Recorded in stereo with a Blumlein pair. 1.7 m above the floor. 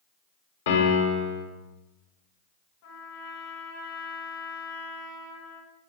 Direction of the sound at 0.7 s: 60° left.